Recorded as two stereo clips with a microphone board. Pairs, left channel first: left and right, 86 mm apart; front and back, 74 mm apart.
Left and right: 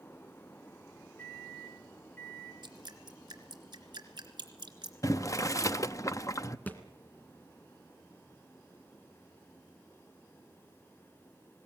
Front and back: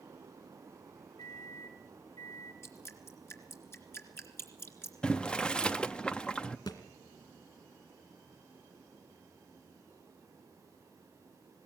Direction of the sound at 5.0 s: 70° left.